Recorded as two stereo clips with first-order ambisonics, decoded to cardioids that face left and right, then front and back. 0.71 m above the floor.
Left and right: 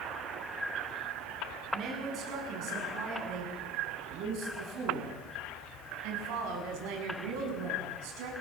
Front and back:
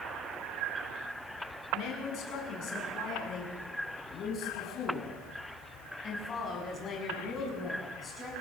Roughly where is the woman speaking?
Ahead right.